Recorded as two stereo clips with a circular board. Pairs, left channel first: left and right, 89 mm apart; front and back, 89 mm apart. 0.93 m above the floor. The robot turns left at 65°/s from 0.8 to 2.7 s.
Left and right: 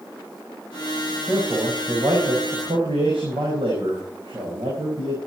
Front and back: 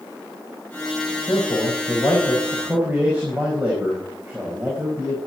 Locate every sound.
1.3 s a man speaking: 15° right, 4.5 m; by 5.2 s 105° right, 4.5 m